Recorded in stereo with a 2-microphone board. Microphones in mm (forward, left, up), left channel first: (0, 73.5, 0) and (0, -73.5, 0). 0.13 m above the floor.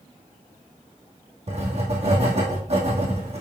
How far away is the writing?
About 2 m.